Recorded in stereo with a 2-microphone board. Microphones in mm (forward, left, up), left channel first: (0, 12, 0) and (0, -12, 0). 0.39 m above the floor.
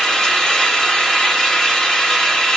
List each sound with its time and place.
0.0 s an engine running: 20° left (ahead or behind), 1.1 m